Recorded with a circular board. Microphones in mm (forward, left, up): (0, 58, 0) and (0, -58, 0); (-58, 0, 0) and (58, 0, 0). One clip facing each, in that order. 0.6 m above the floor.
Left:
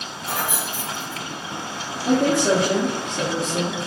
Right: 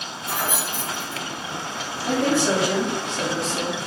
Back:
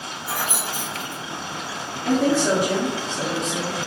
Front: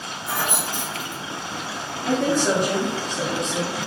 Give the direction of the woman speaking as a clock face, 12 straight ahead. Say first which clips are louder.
Left 3 dB, back 2 dB; 9 o'clock.